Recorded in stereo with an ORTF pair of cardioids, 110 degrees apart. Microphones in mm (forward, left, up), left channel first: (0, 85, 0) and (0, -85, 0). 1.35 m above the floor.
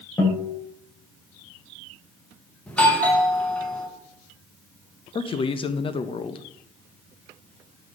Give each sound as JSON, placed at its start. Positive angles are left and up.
{"t": 0.2, "sound": "a guitar", "azimuth_deg": 20, "distance_m": 3.5}
{"t": 2.7, "sound": "a doorbell", "azimuth_deg": 5, "distance_m": 1.9}
{"t": 5.2, "sound": "a man speaking", "azimuth_deg": 30, "distance_m": 0.9}